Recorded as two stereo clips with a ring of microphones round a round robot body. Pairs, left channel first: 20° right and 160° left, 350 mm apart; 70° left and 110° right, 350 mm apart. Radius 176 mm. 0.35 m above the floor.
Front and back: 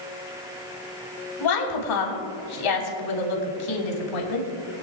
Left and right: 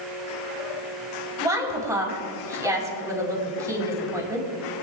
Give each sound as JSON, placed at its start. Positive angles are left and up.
{"t": 1.4, "sound": "a woman speaking", "azimuth_deg": -30, "distance_m": 3.0}